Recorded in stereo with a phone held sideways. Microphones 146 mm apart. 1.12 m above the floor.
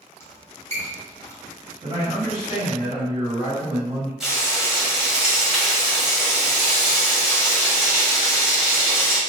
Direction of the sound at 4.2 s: 5° right (ahead or behind).